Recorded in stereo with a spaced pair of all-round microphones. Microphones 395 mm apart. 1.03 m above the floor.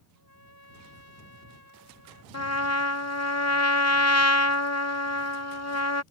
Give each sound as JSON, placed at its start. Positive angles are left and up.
{"t": 0.1, "sound": "a trumpet", "side_deg": 75}
{"t": 2.3, "sound": "a trumpet", "side_deg": 40}